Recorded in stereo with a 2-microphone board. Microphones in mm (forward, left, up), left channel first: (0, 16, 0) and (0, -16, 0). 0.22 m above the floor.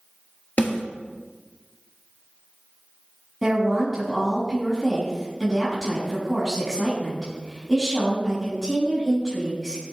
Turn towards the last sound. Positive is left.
turn(degrees=-5)  # may be behind; listen again after turning